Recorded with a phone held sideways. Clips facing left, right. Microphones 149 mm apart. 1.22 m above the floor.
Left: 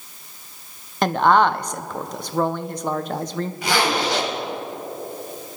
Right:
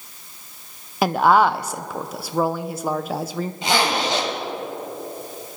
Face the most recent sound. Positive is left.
turn(degrees=-25)  # may be behind; listen again after turning